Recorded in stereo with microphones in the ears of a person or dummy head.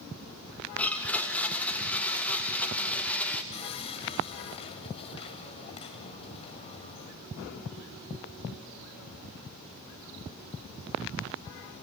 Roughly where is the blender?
Centre.